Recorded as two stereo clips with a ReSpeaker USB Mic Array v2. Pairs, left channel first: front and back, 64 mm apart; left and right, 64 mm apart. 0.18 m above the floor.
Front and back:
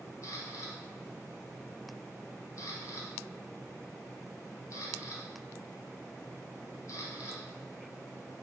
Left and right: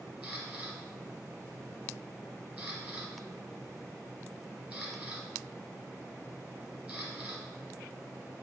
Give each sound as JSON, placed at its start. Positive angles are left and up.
{"t": 0.2, "sound": "a camera shutter", "azimuth_deg": -25, "distance_m": 1.3}